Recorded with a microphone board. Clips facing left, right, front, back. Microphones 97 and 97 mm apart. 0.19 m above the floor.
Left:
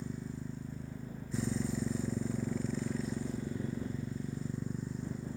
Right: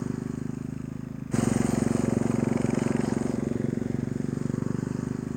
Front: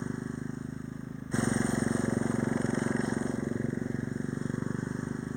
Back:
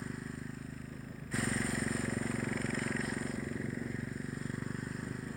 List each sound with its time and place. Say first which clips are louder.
0.0 s a motorcycle: right 10 dB, front 7 dB; 65° right